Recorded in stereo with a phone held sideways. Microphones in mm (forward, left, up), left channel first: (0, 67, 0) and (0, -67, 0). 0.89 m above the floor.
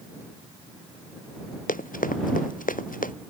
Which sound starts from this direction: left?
Running footsteps, at 1.7 s.